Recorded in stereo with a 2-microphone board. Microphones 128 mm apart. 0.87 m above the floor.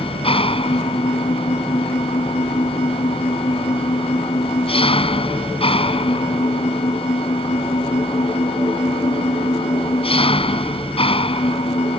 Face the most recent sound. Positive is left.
turn(degrees=45)  # may be behind; listen again after turning